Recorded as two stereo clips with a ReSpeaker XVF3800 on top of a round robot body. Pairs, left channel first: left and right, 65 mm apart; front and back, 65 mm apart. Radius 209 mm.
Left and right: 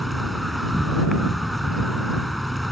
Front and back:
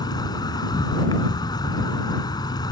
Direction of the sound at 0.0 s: Straight ahead.